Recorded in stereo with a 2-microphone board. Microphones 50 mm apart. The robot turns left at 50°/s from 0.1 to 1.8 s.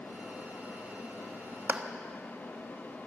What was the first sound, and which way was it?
A clap, 35° right (ahead or behind).